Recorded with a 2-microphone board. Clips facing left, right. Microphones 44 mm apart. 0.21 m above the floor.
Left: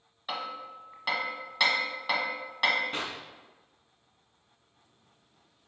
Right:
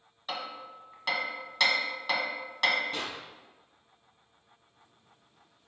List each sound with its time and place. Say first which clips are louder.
0.3 s hammering: left 2 dB; 10° left (ahead or behind), 1.0 m
2.9 s a clap: left 1 dB; 35° left (ahead or behind), 1.4 m